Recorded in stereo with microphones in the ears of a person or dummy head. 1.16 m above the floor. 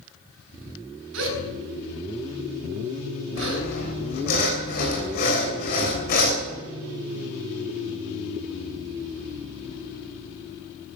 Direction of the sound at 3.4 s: 45° left (ahead or behind).